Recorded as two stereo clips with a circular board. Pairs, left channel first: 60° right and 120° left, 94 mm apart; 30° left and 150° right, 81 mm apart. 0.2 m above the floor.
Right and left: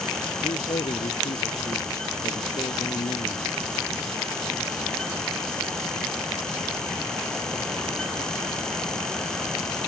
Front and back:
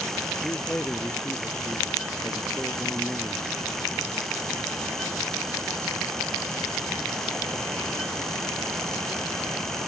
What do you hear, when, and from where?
0.4 s a man speaking: 45° right